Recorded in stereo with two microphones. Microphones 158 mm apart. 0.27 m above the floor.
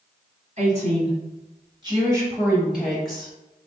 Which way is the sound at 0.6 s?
50° right (ahead or behind).